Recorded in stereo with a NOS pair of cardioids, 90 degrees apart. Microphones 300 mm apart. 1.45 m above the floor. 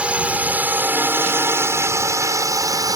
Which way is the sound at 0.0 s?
5° right.